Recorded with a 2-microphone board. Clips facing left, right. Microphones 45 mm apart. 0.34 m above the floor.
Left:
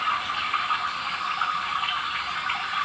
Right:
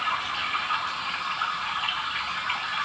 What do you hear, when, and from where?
0.0 s running water: 35° left (ahead or behind), 1.5 m